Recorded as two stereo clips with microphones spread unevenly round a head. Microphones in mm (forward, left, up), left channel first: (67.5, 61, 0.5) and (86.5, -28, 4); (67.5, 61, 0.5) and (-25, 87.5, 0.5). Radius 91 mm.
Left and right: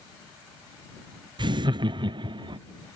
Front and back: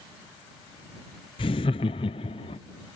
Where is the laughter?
55° right.